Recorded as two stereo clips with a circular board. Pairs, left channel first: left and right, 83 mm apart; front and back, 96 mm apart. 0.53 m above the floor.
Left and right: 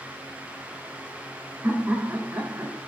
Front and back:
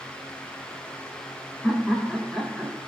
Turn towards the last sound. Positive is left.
turn(degrees=-105)